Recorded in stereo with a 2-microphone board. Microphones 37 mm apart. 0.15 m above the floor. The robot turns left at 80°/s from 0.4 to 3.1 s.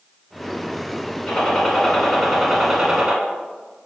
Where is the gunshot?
95° left, 1.0 m; by 3.1 s 55° right, 1.0 m.